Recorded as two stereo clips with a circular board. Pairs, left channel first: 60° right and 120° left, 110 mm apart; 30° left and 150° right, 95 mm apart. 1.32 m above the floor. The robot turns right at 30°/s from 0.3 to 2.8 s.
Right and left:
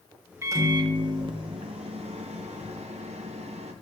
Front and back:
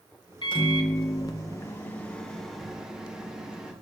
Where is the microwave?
55° left, 0.6 m; by 3.7 s 130° left, 0.6 m.